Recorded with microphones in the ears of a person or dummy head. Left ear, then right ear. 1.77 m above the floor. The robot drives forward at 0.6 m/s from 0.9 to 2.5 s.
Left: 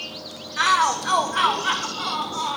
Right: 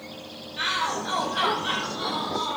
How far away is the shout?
About 1.1 m.